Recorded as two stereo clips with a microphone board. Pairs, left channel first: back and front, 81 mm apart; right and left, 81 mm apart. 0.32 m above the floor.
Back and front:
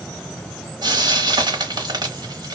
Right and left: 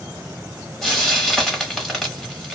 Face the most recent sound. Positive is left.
turn(degrees=0)